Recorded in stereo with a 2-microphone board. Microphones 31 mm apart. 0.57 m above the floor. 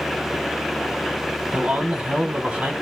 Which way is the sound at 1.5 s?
50° right (ahead or behind).